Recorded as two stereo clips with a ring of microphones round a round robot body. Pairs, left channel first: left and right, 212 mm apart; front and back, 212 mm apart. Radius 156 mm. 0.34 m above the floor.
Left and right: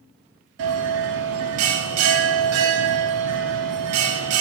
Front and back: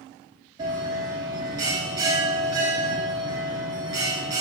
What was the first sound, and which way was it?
A bell, 100° right.